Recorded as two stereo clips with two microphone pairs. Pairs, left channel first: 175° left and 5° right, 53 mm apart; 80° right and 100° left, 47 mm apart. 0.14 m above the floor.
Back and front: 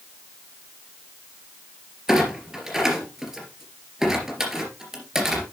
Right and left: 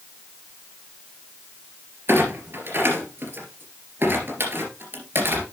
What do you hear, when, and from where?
2.1 s a clunk: 75° left, 3 m